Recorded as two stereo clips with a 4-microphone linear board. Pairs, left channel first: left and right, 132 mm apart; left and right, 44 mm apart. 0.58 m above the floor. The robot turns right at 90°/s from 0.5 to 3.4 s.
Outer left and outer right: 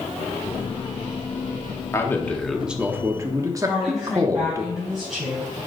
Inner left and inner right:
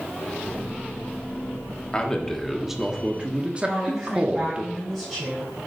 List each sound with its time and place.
1.9 s a man speaking: 20° left (ahead or behind), 1.1 m; by 4.6 s 25° right (ahead or behind), 1.1 m
3.6 s a woman speaking: centre (ahead or behind), 4.5 m